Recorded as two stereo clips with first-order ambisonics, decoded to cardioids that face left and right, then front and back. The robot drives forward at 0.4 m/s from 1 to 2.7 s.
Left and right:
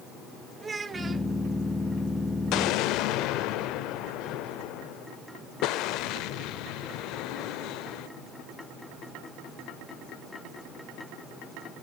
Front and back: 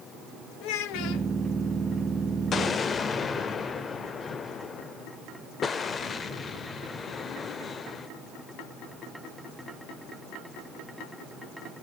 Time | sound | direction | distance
0.6 | a child speaking | 15° right | 0.8 m
2.5 | an explosion | 60° left | 0.6 m